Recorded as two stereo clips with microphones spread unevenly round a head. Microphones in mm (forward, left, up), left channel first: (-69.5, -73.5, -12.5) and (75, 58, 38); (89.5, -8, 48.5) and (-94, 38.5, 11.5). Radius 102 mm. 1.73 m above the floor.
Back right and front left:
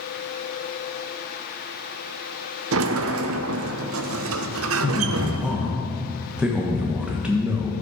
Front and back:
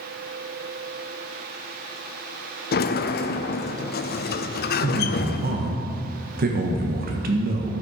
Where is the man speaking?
120° left, 1.3 m.